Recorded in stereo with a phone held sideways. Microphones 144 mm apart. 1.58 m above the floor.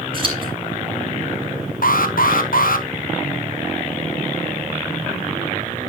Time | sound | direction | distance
0.1 | scissors | 40° right (ahead or behind) | 4 m
1.8 | an alarm | 75° left (ahead or behind) | 1.1 m